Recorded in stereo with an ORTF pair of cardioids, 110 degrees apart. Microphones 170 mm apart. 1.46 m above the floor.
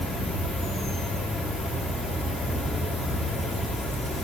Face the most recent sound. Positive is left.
turn(degrees=5)